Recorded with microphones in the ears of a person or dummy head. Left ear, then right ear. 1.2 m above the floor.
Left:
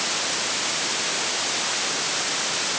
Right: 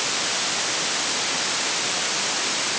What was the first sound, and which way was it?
Only background noise.